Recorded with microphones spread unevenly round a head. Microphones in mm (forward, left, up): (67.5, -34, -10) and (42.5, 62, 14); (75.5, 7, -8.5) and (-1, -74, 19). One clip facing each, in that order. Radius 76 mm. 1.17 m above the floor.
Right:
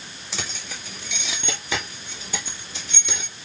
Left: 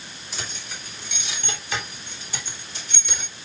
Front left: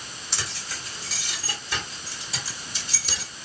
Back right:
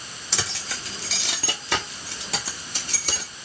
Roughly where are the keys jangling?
Behind right.